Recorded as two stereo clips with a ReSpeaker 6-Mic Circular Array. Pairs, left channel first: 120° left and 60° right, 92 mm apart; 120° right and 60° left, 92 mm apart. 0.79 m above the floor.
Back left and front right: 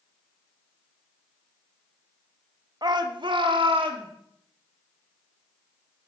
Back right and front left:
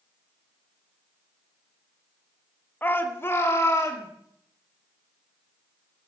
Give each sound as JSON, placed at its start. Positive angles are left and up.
{"t": 2.8, "sound": "a shout", "azimuth_deg": -60, "distance_m": 1.1}